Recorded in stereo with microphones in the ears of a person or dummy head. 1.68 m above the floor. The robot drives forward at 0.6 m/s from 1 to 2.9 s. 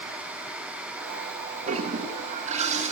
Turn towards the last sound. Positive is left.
turn(degrees=-35)  # may be behind; listen again after turning